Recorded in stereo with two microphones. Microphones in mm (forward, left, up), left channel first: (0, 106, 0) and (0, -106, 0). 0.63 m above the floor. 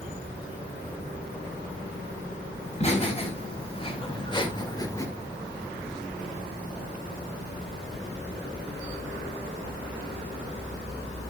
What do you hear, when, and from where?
2.6 s laughter: 35° left (ahead or behind), 4 m; by 5.1 s 15° left (ahead or behind), 1.4 m